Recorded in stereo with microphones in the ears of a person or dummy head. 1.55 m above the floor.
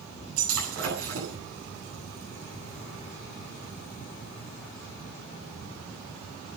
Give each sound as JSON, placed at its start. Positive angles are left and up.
{"t": 0.4, "sound": "breaking glass", "side_deg": -85, "distance_m": 8.5}